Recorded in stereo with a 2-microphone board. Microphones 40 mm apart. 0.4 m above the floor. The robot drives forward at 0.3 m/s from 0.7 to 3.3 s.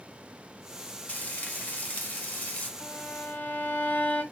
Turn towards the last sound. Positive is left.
turn(degrees=55)  # may be behind; listen again after turning